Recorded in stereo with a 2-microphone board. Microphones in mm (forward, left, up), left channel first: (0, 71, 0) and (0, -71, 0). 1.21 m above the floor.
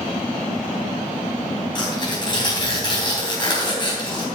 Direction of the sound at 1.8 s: 30° left (ahead or behind).